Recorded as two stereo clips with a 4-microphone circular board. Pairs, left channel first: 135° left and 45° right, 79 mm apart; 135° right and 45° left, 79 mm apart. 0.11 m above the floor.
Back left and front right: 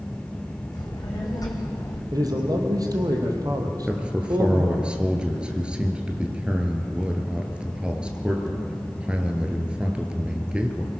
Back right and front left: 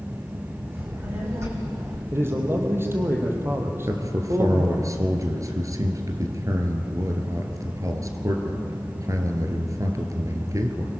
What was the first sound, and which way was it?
A child speaking, 100° left.